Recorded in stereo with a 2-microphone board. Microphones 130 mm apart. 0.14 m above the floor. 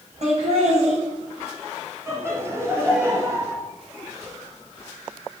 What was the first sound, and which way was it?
Laughter, 60° right (ahead or behind).